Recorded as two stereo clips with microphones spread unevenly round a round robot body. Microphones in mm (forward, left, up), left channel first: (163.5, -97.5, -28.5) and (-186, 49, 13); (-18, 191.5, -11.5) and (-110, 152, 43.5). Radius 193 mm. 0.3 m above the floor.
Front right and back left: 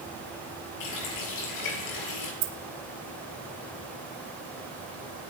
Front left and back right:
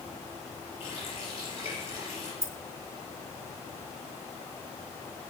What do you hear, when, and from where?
0.8 s a running tap: 15° right, 4 m
2.4 s keys jangling: 175° left, 3 m